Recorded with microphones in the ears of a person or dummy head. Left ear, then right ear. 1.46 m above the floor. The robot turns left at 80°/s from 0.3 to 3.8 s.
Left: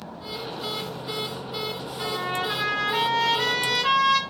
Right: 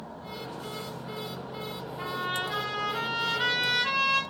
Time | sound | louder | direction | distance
2.0 | a trumpet | left 3 dB | 165° right | 1.4 m